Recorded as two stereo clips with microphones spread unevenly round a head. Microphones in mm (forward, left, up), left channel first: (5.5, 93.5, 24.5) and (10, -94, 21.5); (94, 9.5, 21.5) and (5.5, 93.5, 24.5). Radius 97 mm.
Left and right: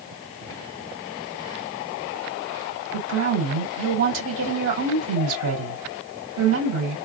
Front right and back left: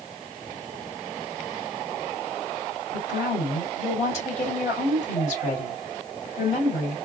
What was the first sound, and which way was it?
A woman speaking, 90° right.